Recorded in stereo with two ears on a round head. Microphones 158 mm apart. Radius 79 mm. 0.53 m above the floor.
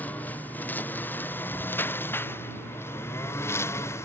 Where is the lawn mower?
10° left (ahead or behind); by 4.1 s 15° left (ahead or behind).